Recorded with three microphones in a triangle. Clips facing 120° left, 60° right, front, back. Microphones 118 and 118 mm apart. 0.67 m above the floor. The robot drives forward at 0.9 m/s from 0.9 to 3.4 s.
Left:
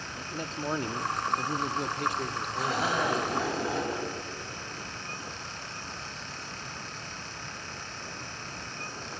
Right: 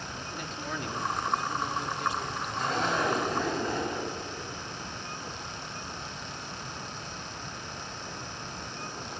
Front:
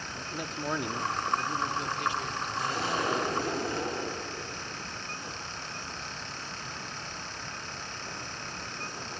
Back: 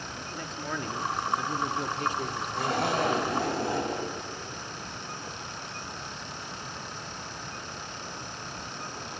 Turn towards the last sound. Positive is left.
turn(degrees=-160)